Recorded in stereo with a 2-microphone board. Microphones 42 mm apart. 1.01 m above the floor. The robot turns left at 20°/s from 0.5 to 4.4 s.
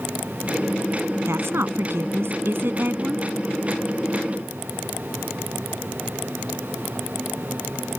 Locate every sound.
1.2 s a woman speaking: 95° right; by 3.3 s 135° right